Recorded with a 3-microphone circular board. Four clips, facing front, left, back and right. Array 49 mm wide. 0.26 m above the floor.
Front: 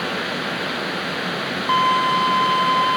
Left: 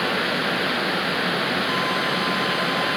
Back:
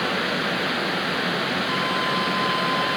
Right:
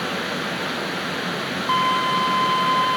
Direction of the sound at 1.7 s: 30° right.